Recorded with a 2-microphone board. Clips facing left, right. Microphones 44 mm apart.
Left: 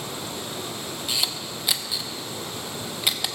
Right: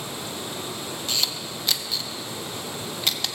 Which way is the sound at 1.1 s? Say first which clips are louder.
Even; 15° left (ahead or behind).